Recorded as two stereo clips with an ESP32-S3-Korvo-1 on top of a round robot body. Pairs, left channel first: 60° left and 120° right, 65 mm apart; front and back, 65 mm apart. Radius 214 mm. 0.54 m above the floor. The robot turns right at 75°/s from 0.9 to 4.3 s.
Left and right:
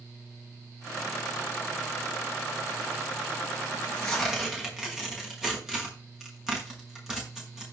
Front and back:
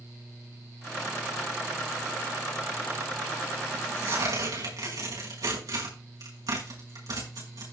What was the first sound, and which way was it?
Tearing paper, 115° left.